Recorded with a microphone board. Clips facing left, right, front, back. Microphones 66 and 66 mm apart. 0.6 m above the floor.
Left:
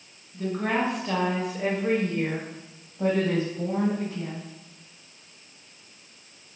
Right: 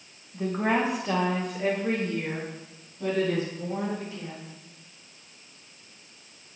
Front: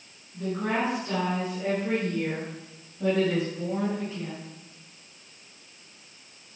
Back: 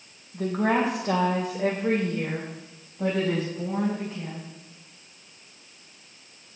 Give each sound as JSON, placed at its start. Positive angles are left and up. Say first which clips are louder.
{"t": 0.3, "sound": "a woman speaking", "louder": "right 1 dB, back 4 dB", "azimuth_deg": -150, "distance_m": 2.5}